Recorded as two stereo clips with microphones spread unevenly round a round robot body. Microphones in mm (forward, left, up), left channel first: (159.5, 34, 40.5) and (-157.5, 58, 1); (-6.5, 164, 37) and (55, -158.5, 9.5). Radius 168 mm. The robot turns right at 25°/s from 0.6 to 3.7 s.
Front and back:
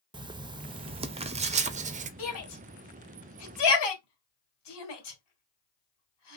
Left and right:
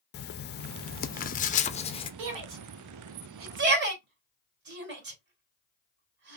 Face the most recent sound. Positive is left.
turn(degrees=-20)